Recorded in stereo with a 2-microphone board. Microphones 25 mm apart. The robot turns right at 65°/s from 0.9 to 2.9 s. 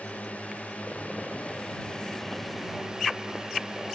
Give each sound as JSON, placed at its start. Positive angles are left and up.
{"t": 0.0, "sound": "a drone", "azimuth_deg": 75}